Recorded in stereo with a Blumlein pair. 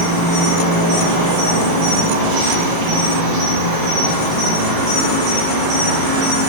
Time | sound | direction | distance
0.0 | an insect | 50° right | 0.9 m